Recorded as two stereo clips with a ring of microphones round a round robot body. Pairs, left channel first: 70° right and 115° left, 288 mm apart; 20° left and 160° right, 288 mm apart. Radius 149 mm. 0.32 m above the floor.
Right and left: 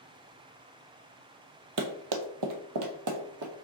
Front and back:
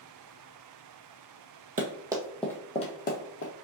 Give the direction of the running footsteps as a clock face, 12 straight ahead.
7 o'clock.